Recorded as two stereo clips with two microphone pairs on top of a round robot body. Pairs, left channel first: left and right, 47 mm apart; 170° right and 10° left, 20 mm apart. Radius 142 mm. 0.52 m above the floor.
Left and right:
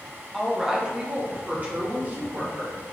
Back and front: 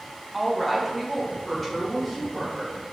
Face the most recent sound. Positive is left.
turn(degrees=-85)